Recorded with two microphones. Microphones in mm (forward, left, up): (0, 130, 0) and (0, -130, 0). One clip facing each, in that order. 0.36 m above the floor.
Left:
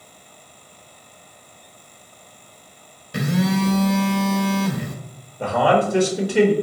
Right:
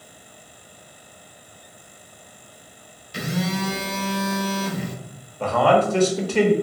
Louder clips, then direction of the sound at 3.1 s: Left 6 dB; 60° left (ahead or behind).